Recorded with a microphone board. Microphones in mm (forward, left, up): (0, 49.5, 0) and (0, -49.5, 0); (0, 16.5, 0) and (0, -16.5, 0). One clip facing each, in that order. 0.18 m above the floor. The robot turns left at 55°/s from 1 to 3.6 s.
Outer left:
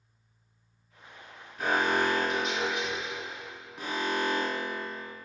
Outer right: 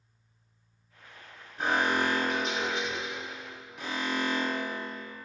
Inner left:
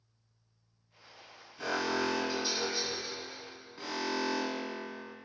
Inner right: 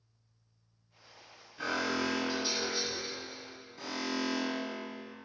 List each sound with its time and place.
1.6 s an alarm: 135° right, 1.8 m; by 5.1 s 115° left, 1.8 m